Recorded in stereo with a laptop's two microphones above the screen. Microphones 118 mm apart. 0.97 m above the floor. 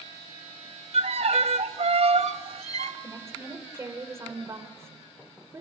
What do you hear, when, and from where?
0.9 s a violin: 70° right (ahead or behind), 1.5 m
3.0 s a woman speaking: 25° right (ahead or behind), 4 m